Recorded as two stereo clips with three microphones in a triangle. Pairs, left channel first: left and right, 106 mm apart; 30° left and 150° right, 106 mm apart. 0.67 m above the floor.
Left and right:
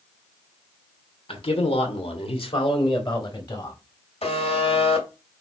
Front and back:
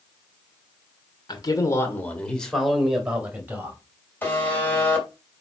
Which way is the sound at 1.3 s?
70° left.